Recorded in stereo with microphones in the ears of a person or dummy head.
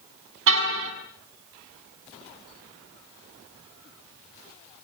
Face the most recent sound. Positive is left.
turn(degrees=-75)  # may be behind; listen again after turning